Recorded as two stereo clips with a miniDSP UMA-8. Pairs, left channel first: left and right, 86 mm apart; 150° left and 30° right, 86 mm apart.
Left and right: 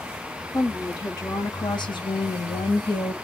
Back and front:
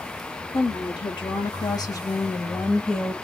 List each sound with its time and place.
0.5 s a woman speaking: 135° left, 1.5 m; by 3.1 s 60° left, 0.9 m